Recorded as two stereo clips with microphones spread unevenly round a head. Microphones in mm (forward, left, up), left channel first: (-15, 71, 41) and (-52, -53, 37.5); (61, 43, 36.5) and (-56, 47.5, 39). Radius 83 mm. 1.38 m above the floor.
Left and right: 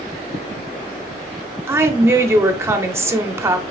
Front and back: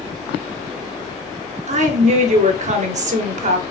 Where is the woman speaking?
175° right, 0.9 m.